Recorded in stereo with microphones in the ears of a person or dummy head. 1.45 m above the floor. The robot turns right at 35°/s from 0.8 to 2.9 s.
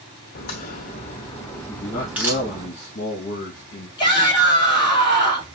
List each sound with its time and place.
0.3 s a crack: 40° left (ahead or behind), 0.9 m; by 2.7 s 20° right (ahead or behind), 0.9 m
1.7 s a man speaking: 15° left, 1.5 m; by 3.9 s 55° left, 1.5 m
4.0 s a shout: 25° left (ahead or behind), 1.8 m